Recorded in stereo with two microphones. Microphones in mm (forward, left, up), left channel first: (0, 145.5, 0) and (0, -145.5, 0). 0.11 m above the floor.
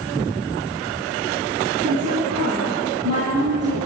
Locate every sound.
1.8 s a woman speaking: 55° right (ahead or behind), 3.5 m